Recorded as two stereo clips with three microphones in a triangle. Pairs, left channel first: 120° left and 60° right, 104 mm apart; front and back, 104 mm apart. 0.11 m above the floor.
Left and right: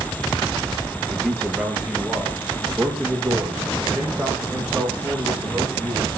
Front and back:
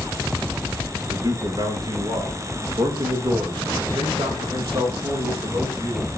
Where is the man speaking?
145° right, 1.8 m; by 6.1 s 140° right, 5 m.